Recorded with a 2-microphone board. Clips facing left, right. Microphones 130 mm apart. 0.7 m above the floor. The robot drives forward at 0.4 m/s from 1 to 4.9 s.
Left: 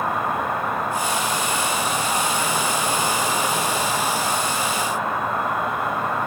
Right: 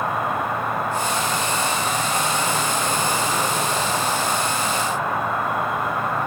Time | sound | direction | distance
0.0 | an insect | 65° left (ahead or behind) | 2.5 m